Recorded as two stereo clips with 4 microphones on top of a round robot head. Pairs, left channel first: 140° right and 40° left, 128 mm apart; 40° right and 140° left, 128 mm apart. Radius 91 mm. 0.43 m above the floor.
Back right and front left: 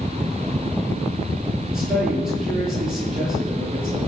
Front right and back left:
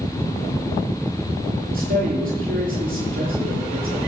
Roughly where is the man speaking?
Behind left.